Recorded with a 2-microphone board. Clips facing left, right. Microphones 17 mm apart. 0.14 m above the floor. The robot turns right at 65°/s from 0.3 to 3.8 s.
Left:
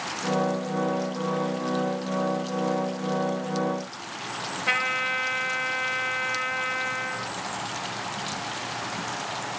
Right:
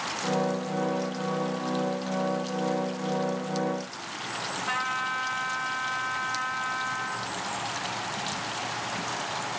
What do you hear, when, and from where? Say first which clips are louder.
4.7 s a trumpet: left 5 dB; 50° left (ahead or behind), 2 m